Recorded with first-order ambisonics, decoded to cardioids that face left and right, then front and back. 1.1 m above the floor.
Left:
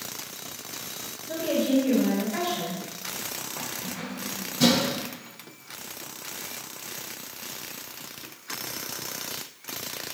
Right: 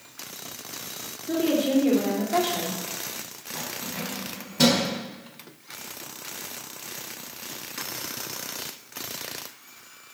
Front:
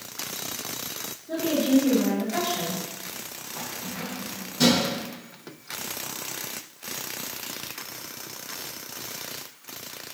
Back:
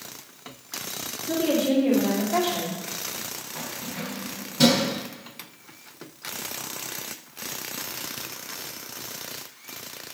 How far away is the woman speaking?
About 3 m.